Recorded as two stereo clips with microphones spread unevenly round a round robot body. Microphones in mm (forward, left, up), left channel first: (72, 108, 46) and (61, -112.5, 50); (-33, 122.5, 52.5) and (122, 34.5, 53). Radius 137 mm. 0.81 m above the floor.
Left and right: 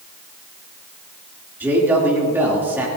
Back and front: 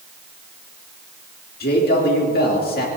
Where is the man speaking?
175° right, 2.5 m.